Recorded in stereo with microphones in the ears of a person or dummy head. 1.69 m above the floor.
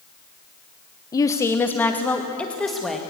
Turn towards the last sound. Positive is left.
turn(degrees=0)  # may be behind; listen again after turning